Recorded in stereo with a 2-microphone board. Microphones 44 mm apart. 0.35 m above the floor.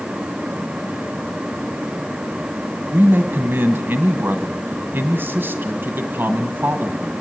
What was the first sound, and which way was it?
A man speaking, 60° right (ahead or behind).